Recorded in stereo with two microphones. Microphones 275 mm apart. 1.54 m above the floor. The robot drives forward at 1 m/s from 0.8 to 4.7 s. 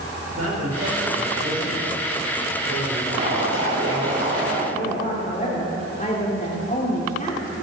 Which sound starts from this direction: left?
A woman speaking, at 4.7 s.